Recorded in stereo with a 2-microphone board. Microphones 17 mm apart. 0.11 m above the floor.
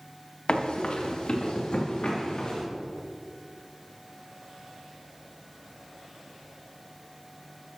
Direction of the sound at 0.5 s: 65° left (ahead or behind).